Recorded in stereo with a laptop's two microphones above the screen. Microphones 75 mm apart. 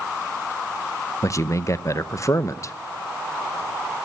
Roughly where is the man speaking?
Left.